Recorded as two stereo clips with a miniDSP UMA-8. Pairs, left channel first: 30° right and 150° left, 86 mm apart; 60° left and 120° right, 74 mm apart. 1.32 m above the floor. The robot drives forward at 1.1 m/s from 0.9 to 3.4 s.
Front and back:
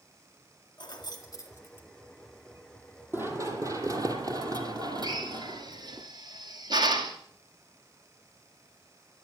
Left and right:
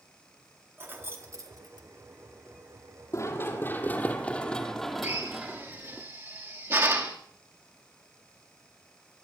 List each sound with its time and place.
0.8 s keys jangling: 60° right, 1.9 m; by 1.9 s 95° right, 1.7 m
3.1 s running footsteps: 90° left, 2 m; by 6.0 s 170° left, 2 m
5.0 s a drill: 175° right, 2 m